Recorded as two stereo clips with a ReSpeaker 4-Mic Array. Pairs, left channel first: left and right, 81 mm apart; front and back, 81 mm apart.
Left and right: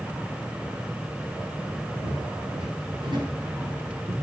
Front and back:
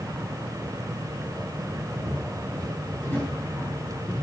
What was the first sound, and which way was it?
Footsteps, 70° right.